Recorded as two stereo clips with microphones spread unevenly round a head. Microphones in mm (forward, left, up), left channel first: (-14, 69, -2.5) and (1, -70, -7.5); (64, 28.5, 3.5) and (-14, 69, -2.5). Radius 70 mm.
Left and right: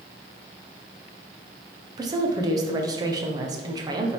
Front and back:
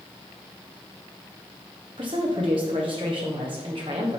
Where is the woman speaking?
150° right, 1.2 m.